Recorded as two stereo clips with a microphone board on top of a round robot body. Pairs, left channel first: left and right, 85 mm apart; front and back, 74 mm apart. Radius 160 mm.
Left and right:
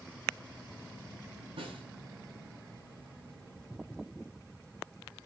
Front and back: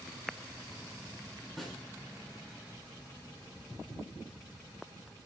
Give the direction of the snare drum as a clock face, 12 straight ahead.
3 o'clock.